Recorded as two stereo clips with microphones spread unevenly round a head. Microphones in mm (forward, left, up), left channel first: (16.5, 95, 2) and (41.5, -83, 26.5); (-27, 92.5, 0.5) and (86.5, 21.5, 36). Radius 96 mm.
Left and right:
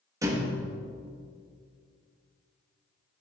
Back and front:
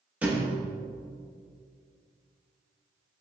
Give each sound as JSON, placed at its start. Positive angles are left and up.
{"t": 0.2, "sound": "a thud", "azimuth_deg": -55, "distance_m": 0.9}